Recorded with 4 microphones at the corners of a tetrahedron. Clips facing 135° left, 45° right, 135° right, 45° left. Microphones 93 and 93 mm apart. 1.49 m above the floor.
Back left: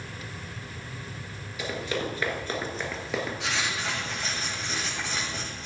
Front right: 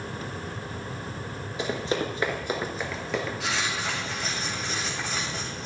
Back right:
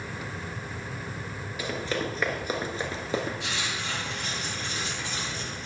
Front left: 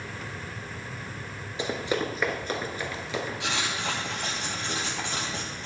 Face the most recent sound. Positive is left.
turn(degrees=45)